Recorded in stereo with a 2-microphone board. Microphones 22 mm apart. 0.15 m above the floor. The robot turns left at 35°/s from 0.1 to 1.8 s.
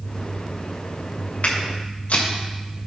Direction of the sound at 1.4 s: 70° left (ahead or behind).